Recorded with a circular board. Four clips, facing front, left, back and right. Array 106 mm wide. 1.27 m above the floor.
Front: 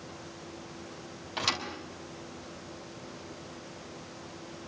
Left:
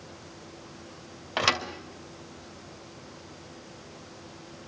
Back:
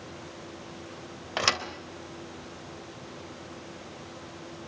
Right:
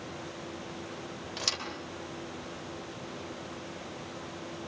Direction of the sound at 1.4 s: 130° left.